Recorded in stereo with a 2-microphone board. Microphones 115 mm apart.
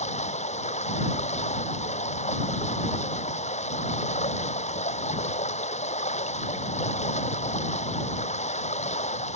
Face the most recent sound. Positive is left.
turn(degrees=80)